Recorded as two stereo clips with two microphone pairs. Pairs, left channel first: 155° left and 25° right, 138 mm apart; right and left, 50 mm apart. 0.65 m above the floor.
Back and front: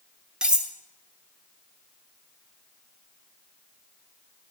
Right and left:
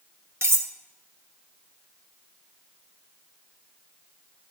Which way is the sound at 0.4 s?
60° left.